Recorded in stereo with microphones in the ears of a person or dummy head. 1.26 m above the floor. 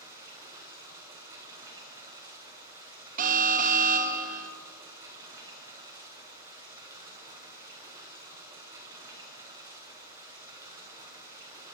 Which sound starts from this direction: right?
An alarm, at 3.2 s.